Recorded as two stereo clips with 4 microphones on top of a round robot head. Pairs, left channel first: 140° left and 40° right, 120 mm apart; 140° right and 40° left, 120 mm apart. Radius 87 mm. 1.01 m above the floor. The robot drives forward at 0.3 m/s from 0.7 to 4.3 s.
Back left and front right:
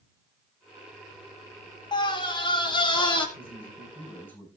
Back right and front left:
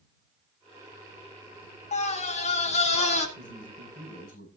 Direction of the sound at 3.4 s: 145° right.